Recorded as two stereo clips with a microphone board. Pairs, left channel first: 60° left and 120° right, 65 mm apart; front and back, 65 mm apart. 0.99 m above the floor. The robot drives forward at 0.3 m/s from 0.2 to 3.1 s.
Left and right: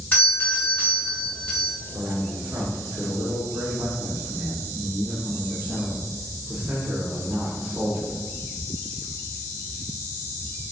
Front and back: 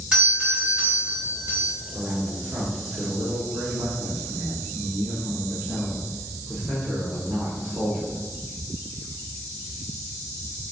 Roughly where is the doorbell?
Left.